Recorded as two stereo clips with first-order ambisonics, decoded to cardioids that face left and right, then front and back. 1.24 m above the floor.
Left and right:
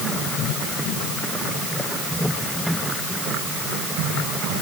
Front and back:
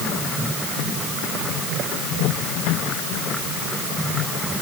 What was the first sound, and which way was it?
Only background noise.